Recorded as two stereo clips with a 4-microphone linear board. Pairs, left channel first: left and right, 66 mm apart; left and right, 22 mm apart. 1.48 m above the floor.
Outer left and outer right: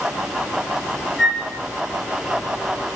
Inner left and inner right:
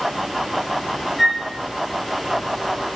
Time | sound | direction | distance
1.2 | a flute | centre (ahead or behind) | 6.5 m